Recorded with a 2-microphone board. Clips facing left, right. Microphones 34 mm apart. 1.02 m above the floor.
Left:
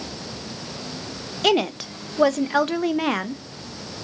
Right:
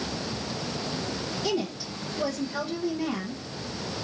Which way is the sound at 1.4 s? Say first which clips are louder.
Left 11 dB; 65° left (ahead or behind).